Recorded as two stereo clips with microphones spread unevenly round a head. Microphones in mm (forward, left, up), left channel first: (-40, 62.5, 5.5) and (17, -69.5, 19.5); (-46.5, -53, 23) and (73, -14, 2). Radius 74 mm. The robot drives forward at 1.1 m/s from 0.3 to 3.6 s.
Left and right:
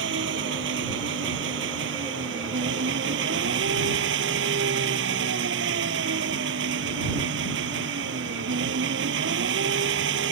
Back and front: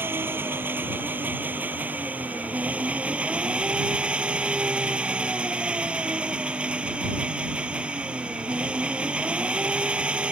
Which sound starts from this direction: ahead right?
An engine running, at 0.0 s.